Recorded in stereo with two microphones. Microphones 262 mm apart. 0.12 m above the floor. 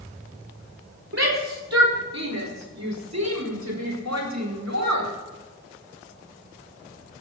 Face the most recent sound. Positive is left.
turn(degrees=-80)